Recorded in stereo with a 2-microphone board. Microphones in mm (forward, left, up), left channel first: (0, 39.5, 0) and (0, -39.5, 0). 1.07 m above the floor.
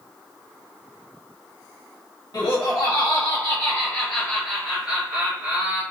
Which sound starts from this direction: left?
Laughter, at 2.3 s.